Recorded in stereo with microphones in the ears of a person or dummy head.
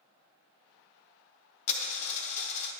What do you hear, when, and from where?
1.7 s a dropped coin: 35° left (ahead or behind), 0.9 m